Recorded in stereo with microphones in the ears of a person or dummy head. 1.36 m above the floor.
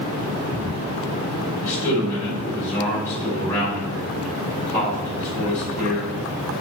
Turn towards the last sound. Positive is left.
turn(degrees=10)  # may be behind; listen again after turning